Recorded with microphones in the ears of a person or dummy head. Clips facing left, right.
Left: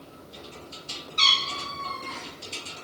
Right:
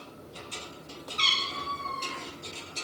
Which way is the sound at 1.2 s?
75° left (ahead or behind).